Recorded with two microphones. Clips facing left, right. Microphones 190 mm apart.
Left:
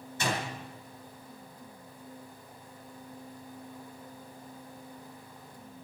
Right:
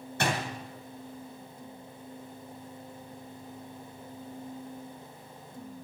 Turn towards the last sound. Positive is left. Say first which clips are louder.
# right 2 dB
turn(degrees=-75)  # may be behind; listen again after turning